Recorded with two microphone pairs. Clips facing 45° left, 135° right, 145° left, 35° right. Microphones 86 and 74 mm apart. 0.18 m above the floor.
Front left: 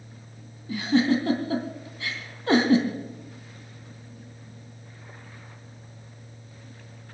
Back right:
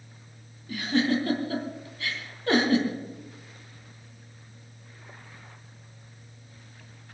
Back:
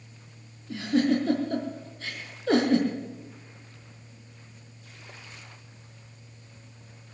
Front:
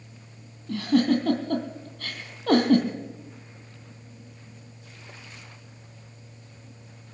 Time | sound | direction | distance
0.7 | a giggle | 25° right | 3 m